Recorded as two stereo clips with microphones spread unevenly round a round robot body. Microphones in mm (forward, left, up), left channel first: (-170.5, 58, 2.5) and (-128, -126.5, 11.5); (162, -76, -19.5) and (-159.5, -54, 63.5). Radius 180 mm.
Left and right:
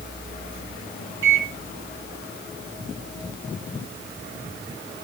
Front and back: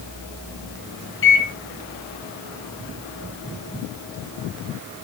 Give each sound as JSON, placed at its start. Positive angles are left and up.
{"t": 1.2, "sound": "a microwave", "azimuth_deg": -50, "distance_m": 1.0}